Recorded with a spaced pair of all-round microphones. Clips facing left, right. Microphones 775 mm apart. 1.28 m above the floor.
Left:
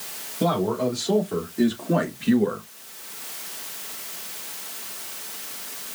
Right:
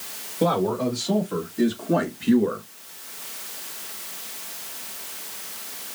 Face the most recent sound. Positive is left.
turn(degrees=40)  # may be behind; listen again after turning